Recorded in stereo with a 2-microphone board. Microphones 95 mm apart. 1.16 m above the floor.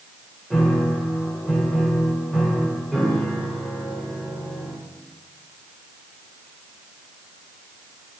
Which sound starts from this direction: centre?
A piano, at 0.5 s.